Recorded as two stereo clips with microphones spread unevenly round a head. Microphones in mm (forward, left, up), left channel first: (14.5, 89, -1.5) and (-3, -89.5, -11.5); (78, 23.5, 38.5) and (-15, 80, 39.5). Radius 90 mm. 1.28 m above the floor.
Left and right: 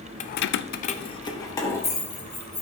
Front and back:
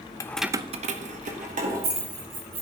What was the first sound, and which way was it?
Keys jangling, 30° left.